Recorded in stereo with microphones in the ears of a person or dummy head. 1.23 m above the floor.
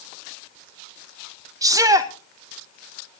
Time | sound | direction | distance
1.6 | a shout | 20° right (ahead or behind) | 1.1 m